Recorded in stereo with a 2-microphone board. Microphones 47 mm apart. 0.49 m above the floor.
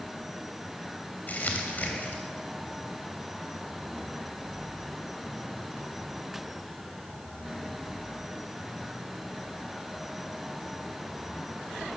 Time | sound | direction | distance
1.3 | crumpling | 40° left (ahead or behind) | 3 m